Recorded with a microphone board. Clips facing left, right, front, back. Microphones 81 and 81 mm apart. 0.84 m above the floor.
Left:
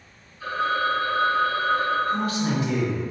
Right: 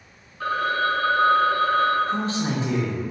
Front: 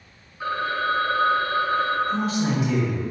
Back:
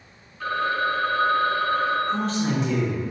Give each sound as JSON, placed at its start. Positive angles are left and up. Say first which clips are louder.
{"t": 0.4, "sound": "a phone ringing", "louder": "right 1 dB, back 1 dB", "azimuth_deg": -75, "distance_m": 0.6}
{"t": 2.1, "sound": "a man speaking", "louder": "left 1 dB, front 1 dB", "azimuth_deg": -80, "distance_m": 0.6}